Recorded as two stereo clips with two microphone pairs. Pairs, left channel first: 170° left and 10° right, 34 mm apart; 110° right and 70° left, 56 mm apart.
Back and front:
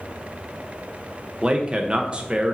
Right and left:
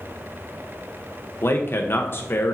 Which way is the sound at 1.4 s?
65° right.